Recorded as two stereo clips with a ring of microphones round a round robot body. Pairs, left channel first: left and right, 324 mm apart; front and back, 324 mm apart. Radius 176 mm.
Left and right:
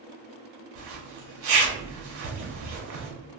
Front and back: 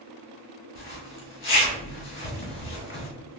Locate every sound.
0.8 s a zipper: 50° right, 1.3 m